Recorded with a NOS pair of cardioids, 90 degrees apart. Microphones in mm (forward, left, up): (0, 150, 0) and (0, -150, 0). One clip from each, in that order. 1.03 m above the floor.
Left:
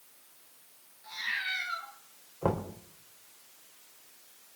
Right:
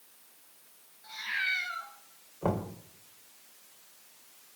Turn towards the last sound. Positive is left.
turn(degrees=15)